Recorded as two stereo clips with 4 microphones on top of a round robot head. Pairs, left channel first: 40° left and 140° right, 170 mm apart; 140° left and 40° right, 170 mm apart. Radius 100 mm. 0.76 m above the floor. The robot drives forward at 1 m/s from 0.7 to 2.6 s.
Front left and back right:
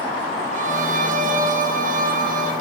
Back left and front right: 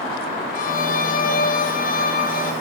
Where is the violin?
Straight behind, 2 m.